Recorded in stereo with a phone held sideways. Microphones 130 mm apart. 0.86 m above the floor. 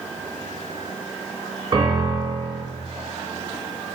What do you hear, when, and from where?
1.7 s a piano: 30° right (ahead or behind), 1.0 m